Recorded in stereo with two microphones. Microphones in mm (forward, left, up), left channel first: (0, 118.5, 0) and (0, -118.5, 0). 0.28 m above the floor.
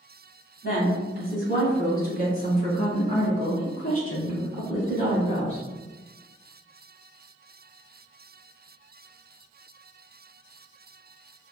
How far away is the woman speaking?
About 1.5 m.